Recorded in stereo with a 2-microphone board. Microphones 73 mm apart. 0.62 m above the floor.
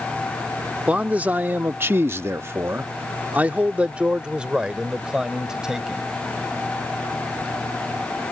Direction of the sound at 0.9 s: 15° right (ahead or behind).